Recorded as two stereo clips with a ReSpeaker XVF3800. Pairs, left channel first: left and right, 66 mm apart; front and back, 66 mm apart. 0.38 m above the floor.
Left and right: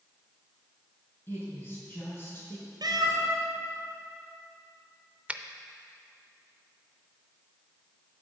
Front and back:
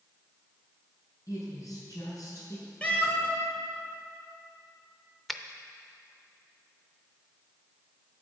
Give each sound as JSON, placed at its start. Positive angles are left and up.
{"t": 1.3, "sound": "a woman speaking", "azimuth_deg": 30, "distance_m": 3.5}
{"t": 2.8, "sound": "a cat meowing", "azimuth_deg": -70, "distance_m": 1.4}
{"t": 5.3, "sound": "a finger snap", "azimuth_deg": -85, "distance_m": 0.6}